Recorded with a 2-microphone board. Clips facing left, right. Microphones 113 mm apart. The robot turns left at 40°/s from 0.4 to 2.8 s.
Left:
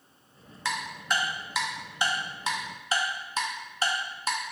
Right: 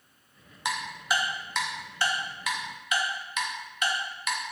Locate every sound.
0.7 s ticking: 15° right (ahead or behind), 0.5 m; by 4.4 s 35° left (ahead or behind), 0.5 m